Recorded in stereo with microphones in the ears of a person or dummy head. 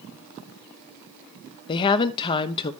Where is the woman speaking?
35° left (ahead or behind), 0.7 m.